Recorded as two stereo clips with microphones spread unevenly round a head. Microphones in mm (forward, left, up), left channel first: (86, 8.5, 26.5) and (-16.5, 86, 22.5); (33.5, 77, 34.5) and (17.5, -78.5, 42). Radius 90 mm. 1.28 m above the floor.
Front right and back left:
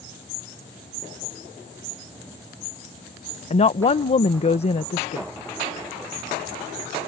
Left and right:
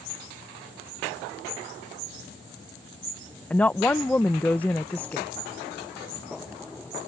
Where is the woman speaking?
5° left.